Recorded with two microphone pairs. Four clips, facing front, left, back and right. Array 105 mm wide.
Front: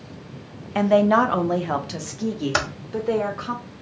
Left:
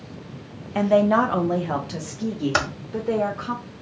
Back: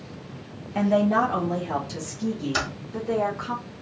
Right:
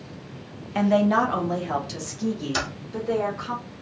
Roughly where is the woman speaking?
Ahead.